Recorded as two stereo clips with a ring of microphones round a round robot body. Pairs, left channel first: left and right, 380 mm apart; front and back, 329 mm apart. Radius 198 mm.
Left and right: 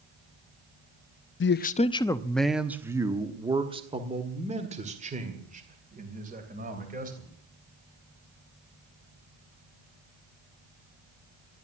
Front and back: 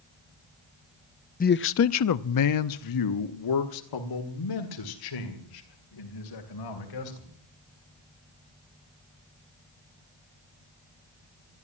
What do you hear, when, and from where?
1.4 s a man speaking: 50° left, 0.5 m; by 7.3 s 20° right, 3 m